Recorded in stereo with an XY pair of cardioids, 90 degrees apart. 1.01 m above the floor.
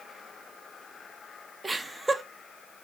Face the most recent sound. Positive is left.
turn(degrees=-20)